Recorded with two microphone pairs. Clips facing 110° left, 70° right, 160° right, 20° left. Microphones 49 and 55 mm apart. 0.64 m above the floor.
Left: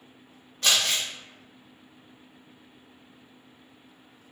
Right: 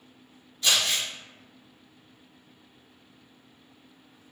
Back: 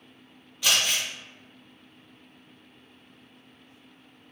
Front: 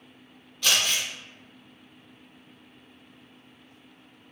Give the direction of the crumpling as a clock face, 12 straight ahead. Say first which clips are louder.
Left 1 dB, even; 8 o'clock.